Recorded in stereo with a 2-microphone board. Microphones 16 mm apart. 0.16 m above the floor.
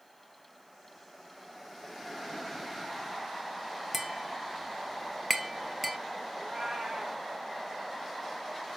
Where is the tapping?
10° right (ahead or behind), 1.9 m.